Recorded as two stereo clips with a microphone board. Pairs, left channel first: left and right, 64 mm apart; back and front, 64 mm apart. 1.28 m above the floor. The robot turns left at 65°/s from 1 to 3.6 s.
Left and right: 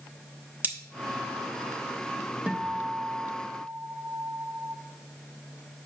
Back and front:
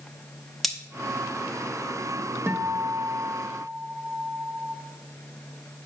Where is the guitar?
30° right, 0.7 m; by 4.8 s 105° right, 0.7 m.